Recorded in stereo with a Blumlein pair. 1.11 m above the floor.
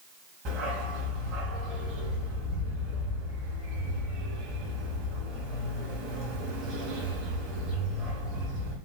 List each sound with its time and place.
0.5 s a dog barking: 35° right, 1.8 m